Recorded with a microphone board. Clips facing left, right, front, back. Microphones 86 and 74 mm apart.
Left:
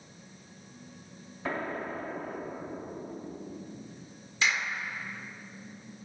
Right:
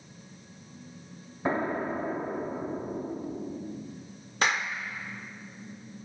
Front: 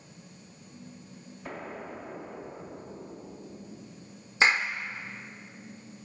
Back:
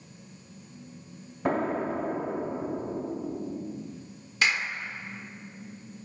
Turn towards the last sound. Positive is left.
turn(degrees=-55)